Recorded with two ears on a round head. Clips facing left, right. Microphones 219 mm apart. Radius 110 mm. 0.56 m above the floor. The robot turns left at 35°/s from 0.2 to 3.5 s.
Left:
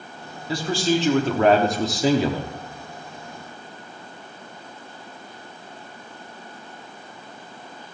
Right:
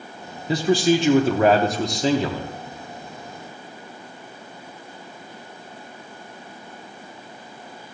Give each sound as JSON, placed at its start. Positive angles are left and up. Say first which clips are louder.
{"t": 0.5, "sound": "a man speaking", "louder": "right 4 dB", "side_deg": -20, "distance_m": 0.8}